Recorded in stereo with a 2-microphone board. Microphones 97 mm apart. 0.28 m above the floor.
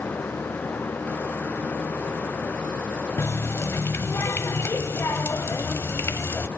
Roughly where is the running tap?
Left.